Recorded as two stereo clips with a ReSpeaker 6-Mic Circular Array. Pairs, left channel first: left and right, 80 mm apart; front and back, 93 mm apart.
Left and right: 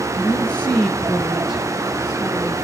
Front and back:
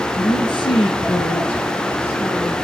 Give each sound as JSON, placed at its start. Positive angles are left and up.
{"t": 0.1, "sound": "a woman speaking", "azimuth_deg": 25, "distance_m": 3.0}